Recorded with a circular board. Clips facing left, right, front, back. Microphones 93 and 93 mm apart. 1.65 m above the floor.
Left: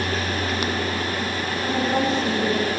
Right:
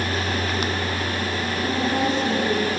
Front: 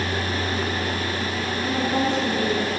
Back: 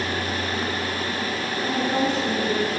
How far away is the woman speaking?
About 9.5 m.